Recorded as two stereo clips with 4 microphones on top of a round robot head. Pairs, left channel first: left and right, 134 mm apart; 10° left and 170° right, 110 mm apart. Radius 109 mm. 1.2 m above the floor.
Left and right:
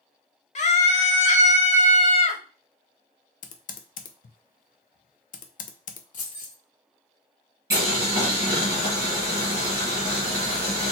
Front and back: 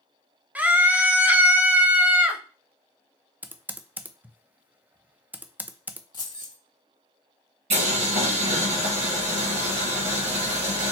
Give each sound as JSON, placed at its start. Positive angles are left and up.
{"t": 0.6, "sound": "a scream", "azimuth_deg": 115, "distance_m": 1.1}
{"t": 3.4, "sound": "typing on a keyboard", "azimuth_deg": 115, "distance_m": 0.6}
{"t": 6.1, "sound": "keys jangling", "azimuth_deg": 60, "distance_m": 1.1}
{"t": 7.7, "sound": "boiling", "azimuth_deg": -160, "distance_m": 1.8}